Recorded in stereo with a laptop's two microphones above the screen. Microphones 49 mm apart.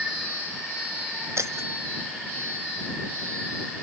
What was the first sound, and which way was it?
Breaking glass, 75° right (ahead or behind).